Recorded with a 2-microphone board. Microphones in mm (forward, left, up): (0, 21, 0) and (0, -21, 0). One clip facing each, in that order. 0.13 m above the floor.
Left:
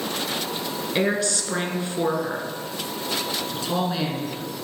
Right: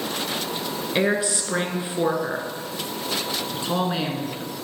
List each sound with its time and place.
0.9 s a woman speaking: 15° right (ahead or behind), 1.3 m
3.5 s a man speaking: 25° right (ahead or behind), 1.5 m